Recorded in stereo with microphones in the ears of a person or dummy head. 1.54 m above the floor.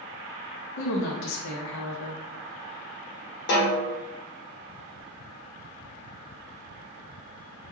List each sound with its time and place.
0.8 s a woman speaking: 65° left (ahead or behind), 0.5 m
3.5 s a snare drum: 55° left (ahead or behind), 0.9 m